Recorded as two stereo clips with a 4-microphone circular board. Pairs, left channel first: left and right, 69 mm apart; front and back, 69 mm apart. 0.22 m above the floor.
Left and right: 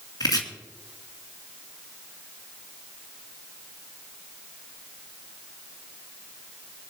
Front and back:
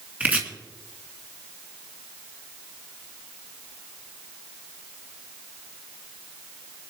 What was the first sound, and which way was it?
Chopping, 110° left.